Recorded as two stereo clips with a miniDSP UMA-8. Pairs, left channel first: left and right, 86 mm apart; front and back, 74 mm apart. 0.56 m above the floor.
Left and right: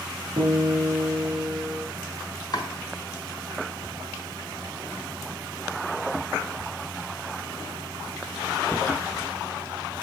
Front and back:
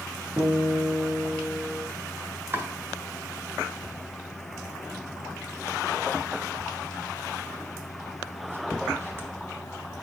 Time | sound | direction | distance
0.4 | a guitar | 120° right | 2.5 m
2.5 | chopping | 125° left | 1.4 m